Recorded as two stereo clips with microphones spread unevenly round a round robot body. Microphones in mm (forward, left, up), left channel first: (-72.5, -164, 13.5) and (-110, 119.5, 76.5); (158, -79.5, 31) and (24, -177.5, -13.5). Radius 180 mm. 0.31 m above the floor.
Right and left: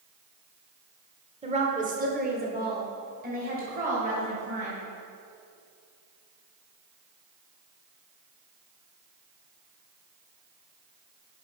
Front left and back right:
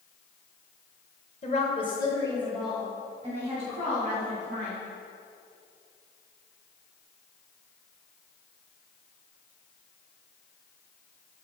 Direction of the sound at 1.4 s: 25° left.